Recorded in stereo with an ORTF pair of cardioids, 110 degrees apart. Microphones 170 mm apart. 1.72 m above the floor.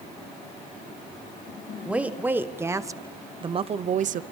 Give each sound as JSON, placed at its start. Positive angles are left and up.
{"t": 1.9, "sound": "a woman speaking", "azimuth_deg": -5, "distance_m": 1.8}